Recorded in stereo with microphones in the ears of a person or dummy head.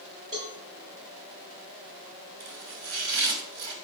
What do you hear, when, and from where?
0.3 s a cowbell: 40° right (ahead or behind), 6.5 m
2.4 s chopping: 60° right (ahead or behind), 3 m